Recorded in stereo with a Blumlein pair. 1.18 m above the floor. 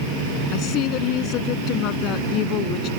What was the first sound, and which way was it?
A woman speaking, 35° left.